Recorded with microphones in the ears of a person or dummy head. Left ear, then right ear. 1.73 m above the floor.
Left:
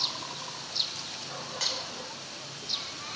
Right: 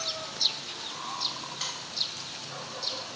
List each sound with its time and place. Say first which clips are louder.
1.6 s a finger snap: left 5 dB; 10° left (ahead or behind), 0.9 m